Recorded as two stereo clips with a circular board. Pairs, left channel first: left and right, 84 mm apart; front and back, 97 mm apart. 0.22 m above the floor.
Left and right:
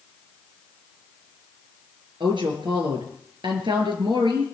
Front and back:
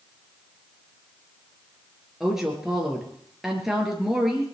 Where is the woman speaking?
95° right, 4 m.